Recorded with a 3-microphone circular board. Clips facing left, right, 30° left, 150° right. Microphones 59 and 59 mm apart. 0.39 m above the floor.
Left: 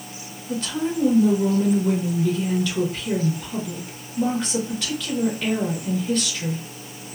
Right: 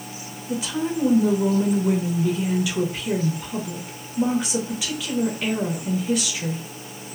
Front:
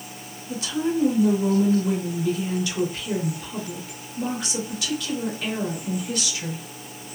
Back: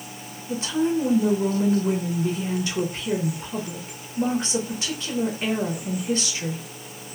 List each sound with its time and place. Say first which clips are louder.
0.5 s a woman speaking: even, back 2 dB; 165° right, 0.9 m